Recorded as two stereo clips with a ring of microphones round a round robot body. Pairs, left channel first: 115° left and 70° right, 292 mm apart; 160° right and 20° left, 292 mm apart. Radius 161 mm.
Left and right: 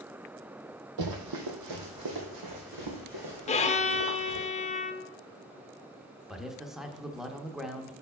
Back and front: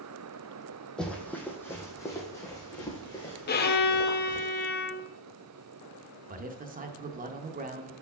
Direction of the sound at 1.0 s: 70° right.